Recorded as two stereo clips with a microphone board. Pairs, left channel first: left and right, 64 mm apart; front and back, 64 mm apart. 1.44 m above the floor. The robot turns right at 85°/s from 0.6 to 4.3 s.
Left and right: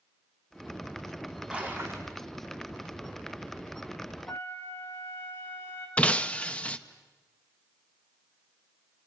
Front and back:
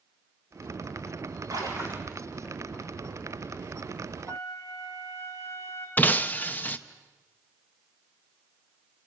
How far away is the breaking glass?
About 0.8 m.